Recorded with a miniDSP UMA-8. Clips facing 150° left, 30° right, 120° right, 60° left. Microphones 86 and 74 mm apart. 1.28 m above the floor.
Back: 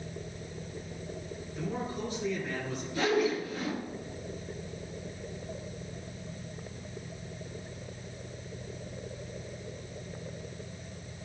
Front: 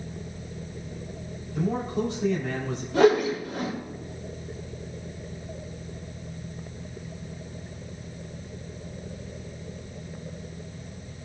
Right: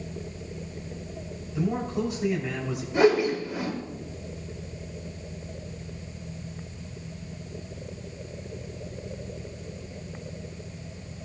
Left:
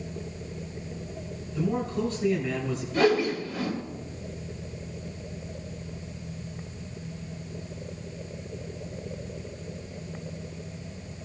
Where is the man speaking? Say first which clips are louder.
Front 8 dB, even; 45° right, 3.5 m.